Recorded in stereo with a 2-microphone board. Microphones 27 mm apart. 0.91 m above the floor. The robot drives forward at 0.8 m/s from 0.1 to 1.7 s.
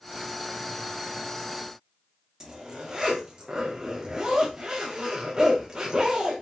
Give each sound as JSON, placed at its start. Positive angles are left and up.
{"t": 2.4, "sound": "a zipper", "side_deg": -25, "distance_m": 2.5}